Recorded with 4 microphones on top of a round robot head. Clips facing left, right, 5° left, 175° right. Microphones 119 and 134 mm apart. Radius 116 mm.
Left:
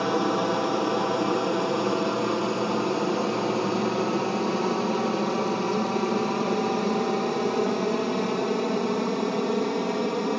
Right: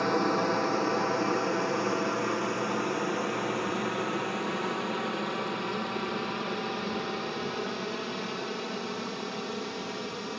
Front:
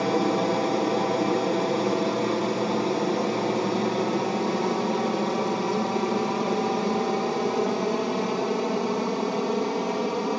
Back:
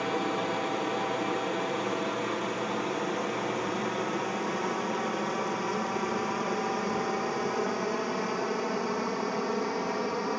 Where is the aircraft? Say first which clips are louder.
Left 3 dB, front 7 dB; 20° left; by 10.4 s 70° left.